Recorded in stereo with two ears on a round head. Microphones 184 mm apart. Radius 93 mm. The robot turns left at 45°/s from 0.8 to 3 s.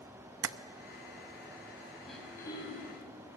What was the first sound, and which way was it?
Tapping, 65° right (ahead or behind).